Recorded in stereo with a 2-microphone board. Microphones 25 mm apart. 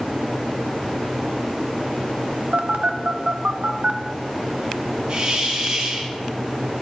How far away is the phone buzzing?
About 0.7 m.